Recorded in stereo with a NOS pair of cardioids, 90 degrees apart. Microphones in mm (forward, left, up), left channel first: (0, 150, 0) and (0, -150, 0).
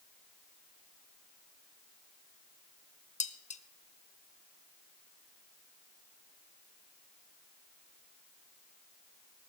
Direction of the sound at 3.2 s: 25° left.